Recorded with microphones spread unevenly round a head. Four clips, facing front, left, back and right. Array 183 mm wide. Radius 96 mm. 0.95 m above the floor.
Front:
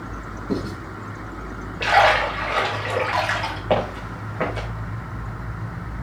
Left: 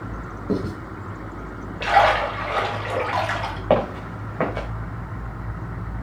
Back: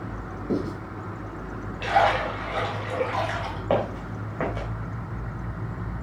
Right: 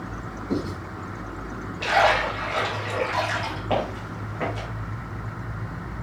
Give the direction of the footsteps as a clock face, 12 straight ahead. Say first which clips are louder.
Left 7 dB, front 2 dB; 9 o'clock.